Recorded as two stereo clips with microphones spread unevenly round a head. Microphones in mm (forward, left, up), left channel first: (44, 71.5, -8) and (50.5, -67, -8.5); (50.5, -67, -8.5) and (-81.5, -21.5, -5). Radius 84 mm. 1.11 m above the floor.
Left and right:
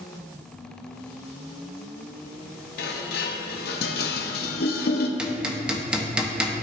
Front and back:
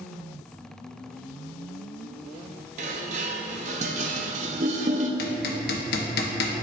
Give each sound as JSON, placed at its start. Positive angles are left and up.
{"t": 2.8, "sound": "dishes clattering", "azimuth_deg": 115, "distance_m": 0.6}
{"t": 5.2, "sound": "hammering", "azimuth_deg": -5, "distance_m": 0.9}